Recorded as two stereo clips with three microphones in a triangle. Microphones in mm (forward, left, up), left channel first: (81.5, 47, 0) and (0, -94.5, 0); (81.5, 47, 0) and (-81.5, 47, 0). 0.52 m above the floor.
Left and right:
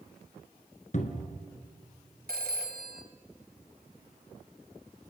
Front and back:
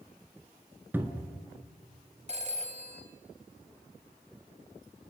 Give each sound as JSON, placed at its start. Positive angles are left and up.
{"t": 0.9, "sound": "a cupboard door", "azimuth_deg": 100, "distance_m": 2.0}
{"t": 2.3, "sound": "a phone ringing", "azimuth_deg": -135, "distance_m": 2.0}